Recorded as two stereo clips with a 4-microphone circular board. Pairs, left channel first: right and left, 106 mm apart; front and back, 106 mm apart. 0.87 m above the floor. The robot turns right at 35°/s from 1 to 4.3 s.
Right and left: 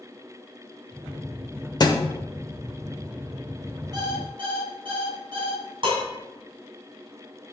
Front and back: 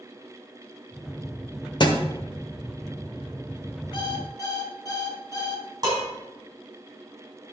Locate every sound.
1.8 s a thud: 40° right, 1.2 m; by 2.0 s 35° right, 1.2 m
3.9 s an alarm clock: 45° left, 2 m; by 5.7 s 55° left, 2 m
5.8 s dishes clattering: 130° left, 4.5 m